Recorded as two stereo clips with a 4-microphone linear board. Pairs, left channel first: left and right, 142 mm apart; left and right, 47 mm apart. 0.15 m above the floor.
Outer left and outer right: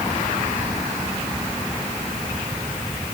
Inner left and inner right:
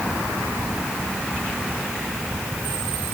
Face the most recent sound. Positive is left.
No sound to turn to.